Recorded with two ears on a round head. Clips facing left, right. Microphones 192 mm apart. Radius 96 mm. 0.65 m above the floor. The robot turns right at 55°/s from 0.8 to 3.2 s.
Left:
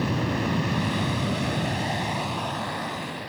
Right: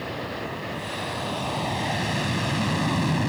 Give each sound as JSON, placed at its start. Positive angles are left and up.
{"t": 0.0, "sound": "an aircraft", "side_deg": 60}